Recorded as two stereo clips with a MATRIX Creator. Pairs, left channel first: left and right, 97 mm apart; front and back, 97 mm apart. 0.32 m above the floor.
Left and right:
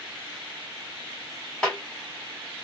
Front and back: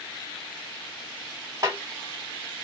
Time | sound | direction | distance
1.6 | a snare drum | 165° left | 1.5 m